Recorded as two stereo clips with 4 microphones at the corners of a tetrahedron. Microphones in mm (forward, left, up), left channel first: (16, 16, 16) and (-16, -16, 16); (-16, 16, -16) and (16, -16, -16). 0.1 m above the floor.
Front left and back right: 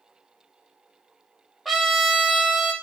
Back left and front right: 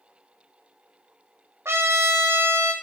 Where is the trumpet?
45° right, 0.6 m.